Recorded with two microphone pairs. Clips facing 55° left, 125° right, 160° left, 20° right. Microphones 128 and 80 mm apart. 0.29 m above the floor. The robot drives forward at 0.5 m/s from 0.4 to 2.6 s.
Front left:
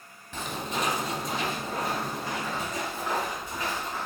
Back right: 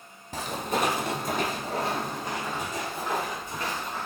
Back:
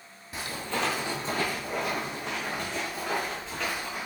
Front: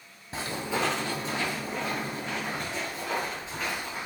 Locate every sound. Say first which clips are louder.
0.3 s footsteps: back right 3 dB, front 2 dB; 75° right, 0.8 m; by 4.1 s 140° left, 1.8 m